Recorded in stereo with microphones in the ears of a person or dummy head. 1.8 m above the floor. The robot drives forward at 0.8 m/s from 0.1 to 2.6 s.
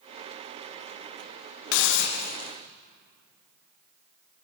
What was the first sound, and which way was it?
A hiss, 75° left (ahead or behind).